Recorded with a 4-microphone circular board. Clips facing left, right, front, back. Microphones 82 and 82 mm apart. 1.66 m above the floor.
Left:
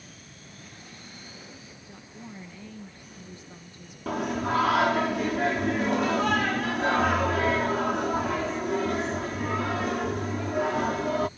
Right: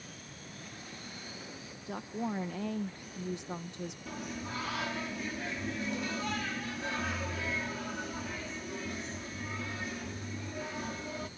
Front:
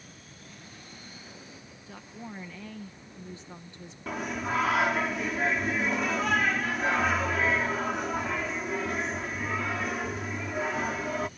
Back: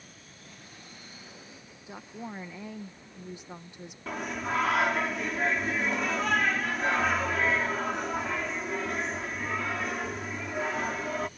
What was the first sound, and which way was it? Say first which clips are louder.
A woman speaking: right 10 dB, back 3 dB; 105° right.